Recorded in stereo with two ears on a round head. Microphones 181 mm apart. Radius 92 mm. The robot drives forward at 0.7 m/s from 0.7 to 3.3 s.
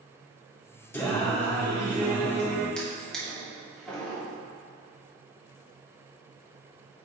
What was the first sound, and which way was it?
Singing, 10° left (ahead or behind).